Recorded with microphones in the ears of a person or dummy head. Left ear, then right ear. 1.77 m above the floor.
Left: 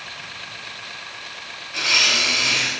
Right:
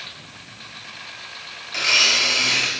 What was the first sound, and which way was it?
A blender, 25° right (ahead or behind).